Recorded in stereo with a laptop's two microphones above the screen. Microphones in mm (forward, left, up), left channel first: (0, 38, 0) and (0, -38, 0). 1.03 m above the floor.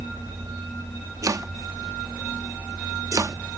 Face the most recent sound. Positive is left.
turn(degrees=-45)  # may be behind; listen again after turning